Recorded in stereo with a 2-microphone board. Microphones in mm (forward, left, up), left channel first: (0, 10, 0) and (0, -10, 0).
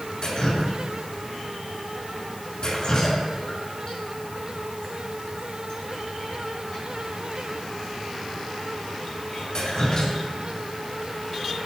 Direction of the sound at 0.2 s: 50° left (ahead or behind).